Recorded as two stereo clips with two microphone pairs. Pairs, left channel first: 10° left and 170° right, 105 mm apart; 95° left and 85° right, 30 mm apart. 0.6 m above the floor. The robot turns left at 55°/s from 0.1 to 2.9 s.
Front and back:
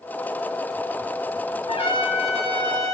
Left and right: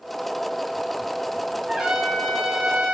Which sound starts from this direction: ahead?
A trumpet, at 1.7 s.